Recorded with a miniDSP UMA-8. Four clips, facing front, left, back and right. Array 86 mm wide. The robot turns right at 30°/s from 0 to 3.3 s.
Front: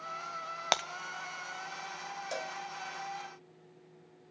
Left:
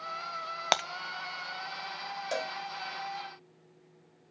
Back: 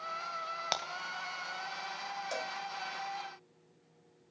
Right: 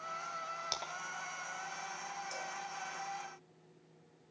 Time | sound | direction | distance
0.7 | breaking glass | 65° left | 1.6 m
2.3 | a cowbell | 85° left | 0.8 m